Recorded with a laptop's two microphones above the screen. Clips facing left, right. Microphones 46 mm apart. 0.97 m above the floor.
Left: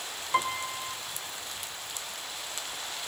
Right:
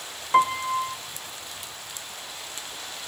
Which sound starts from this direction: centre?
A piano, at 0.3 s.